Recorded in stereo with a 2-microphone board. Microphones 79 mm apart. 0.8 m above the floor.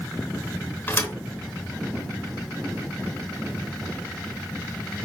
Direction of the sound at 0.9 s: 25° left (ahead or behind).